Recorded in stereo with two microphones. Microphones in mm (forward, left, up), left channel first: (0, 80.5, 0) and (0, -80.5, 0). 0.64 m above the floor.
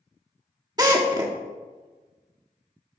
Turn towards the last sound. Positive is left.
turn(degrees=-25)  # may be behind; listen again after turning